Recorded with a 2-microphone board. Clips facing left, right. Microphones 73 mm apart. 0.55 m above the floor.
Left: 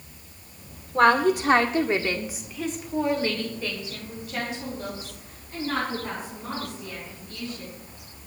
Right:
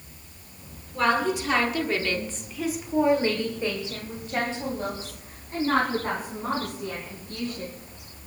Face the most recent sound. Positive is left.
turn(degrees=-40)  # may be behind; listen again after turning